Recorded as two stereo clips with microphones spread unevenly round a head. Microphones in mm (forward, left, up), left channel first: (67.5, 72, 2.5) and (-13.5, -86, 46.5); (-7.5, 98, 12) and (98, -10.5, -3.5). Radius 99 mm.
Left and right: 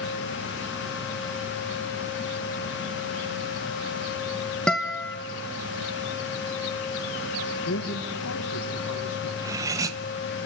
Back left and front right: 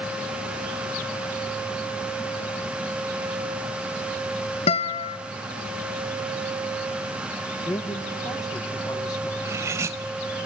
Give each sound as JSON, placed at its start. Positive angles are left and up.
{"t": 4.7, "sound": "a guitar", "azimuth_deg": 160, "distance_m": 1.0}
{"t": 7.7, "sound": "a man speaking", "azimuth_deg": 70, "distance_m": 1.8}
{"t": 9.4, "sound": "cutlery clinking", "azimuth_deg": -115, "distance_m": 0.8}